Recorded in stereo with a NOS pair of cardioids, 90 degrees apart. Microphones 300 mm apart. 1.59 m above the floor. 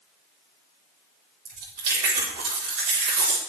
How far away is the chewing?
About 3.5 m.